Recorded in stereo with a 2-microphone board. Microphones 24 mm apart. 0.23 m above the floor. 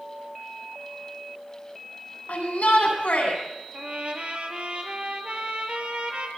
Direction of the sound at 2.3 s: 80° left.